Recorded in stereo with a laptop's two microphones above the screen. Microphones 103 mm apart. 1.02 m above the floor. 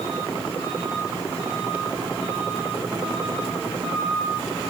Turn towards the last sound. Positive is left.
No sound to turn to.